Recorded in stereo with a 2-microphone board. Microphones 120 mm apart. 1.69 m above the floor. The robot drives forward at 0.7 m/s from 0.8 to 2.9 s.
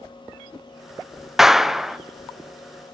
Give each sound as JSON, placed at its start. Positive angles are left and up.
{"t": 1.4, "sound": "a clap", "side_deg": 0, "distance_m": 0.7}